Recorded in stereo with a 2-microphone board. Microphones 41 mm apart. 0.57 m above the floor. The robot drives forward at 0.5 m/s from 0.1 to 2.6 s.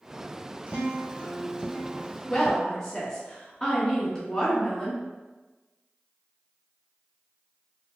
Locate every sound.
0.7 s a guitar: 35° right (ahead or behind), 1.0 m; by 2.2 s 20° right (ahead or behind), 1.6 m
2.3 s a woman speaking: 15° left (ahead or behind), 0.9 m